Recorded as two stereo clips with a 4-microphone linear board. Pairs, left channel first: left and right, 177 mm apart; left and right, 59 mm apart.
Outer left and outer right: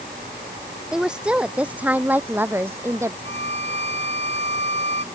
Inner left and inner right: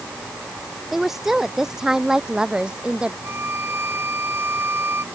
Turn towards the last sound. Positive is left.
turn(degrees=-40)  # may be behind; listen again after turning